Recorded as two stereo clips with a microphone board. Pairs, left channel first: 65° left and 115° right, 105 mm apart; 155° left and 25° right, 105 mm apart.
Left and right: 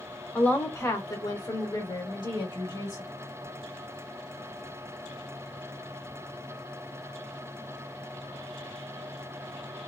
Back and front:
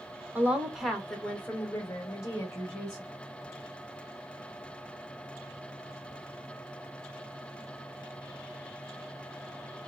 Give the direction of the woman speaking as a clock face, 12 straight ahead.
11 o'clock.